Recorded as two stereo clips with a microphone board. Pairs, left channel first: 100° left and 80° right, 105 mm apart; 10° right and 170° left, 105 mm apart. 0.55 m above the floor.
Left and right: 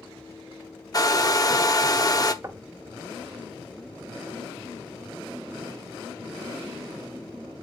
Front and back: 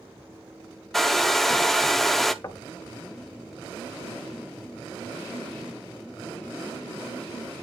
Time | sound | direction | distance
0.9 | a hair dryer | 75° left | 0.8 m
2.4 | knocking | 45° right | 1.0 m